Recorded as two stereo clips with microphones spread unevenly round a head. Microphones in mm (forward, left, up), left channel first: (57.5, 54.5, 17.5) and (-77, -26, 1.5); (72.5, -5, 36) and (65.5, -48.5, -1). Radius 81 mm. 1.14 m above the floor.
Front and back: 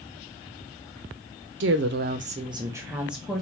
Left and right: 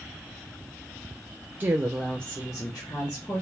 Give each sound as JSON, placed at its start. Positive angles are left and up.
{"t": 1.6, "sound": "a woman speaking", "azimuth_deg": -145, "distance_m": 0.6}